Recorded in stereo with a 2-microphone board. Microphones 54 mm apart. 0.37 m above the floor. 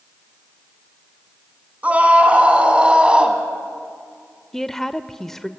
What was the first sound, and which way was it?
A scream, 25° right (ahead or behind).